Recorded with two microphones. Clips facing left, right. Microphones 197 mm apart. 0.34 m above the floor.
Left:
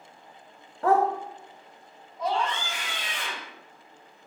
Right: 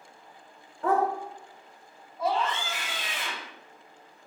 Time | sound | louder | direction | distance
0.8 | a dog barking | left 3 dB | 70° left (ahead or behind) | 0.6 m
2.2 | a scream | even | 5° right (ahead or behind) | 1.4 m